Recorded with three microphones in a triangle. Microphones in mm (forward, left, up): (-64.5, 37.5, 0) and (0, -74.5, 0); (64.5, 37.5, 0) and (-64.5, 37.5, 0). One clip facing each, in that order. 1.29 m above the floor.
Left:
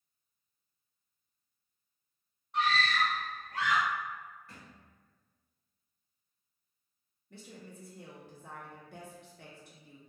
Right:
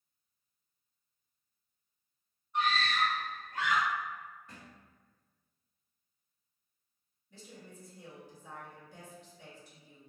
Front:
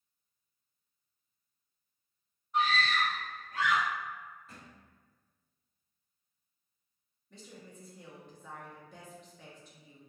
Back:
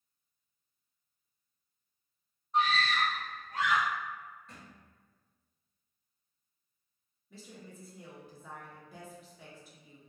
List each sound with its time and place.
2.5 s a scream: 125° left, 1.6 m
4.5 s a thud: 80° right, 1.1 m
7.3 s a woman speaking: 95° left, 0.9 m